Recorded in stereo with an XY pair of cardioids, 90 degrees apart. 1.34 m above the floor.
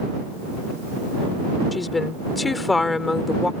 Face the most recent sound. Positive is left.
turn(degrees=25)